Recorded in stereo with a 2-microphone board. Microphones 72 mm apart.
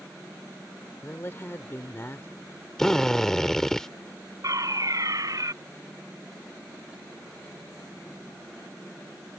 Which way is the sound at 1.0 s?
35° left (ahead or behind).